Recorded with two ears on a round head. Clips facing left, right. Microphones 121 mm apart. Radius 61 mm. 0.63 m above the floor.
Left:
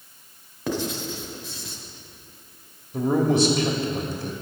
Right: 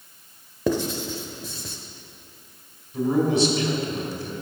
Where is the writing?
80° right, 1.0 m.